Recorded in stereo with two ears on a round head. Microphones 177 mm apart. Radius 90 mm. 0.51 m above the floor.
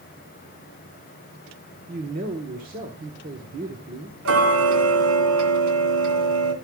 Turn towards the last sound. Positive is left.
turn(degrees=-80)